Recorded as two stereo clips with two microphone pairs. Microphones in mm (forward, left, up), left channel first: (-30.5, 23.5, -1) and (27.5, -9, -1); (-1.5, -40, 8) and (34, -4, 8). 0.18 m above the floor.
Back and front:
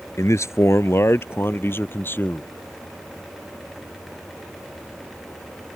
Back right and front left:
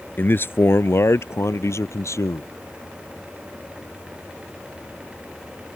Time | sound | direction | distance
0.2 | a man speaking | 175° right | ?